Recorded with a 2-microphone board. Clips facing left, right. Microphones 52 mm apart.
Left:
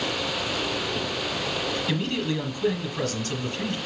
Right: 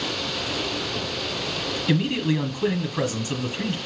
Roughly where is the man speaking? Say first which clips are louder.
Right 8 dB; centre.